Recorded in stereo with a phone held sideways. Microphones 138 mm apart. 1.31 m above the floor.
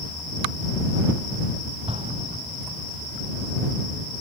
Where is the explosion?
45° right (ahead or behind).